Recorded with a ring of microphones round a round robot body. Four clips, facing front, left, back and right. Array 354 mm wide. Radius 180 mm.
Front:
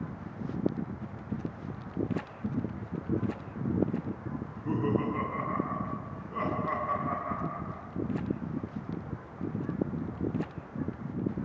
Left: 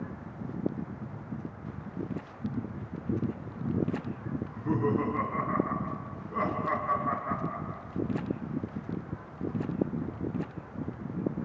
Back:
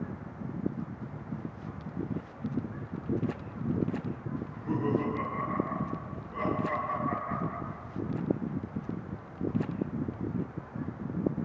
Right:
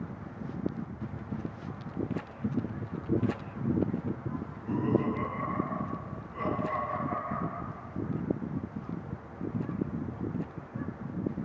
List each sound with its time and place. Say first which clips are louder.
4.4 s laughter: left 4 dB, even; 60° left, 7 m; by 7.8 s 55° left, 9.5 m